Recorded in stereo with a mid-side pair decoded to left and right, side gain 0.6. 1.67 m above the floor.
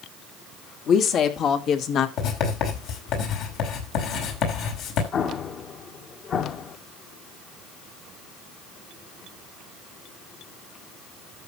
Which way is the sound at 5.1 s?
45° left.